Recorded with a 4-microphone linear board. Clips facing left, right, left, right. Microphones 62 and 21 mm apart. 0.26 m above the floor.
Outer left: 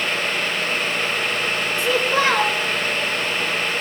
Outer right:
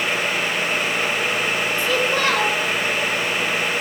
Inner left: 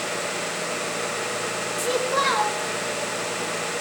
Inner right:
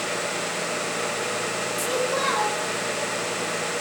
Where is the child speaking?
20° left (ahead or behind), 3 m.